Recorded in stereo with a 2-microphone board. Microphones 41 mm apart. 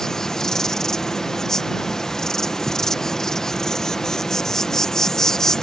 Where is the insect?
15° left (ahead or behind).